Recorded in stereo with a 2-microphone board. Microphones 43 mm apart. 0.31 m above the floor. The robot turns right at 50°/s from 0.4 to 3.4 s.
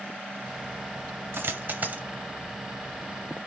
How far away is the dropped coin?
About 1.1 m.